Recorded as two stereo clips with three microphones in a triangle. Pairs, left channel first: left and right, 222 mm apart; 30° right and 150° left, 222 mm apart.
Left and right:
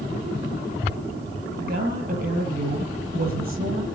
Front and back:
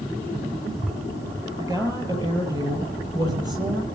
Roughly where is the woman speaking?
Behind right.